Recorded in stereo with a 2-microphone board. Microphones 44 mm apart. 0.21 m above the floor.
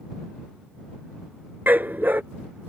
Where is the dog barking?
50° right (ahead or behind).